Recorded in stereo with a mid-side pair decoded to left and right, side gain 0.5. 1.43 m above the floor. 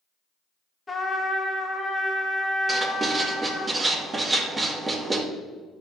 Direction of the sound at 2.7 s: 30° right.